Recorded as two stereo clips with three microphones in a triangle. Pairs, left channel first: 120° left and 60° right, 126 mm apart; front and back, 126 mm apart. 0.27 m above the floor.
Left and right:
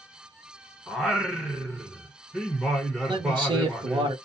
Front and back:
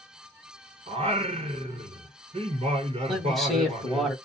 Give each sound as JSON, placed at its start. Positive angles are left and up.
{"t": 0.9, "sound": "singing", "azimuth_deg": -145, "distance_m": 0.9}
{"t": 3.1, "sound": "a man speaking", "azimuth_deg": -90, "distance_m": 1.3}